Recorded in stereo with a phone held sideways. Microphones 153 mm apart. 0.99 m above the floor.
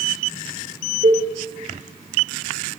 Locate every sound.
1.0 s a cowbell: 65° right (ahead or behind), 3 m